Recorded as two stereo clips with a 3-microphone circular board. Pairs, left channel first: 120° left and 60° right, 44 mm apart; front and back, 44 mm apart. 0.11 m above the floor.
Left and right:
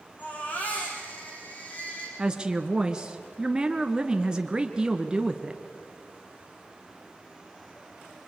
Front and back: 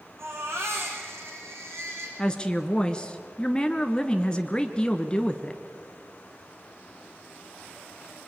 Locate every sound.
0.2 s a baby crying: 170° left, 5.5 m
2.2 s a woman speaking: 30° right, 1.2 m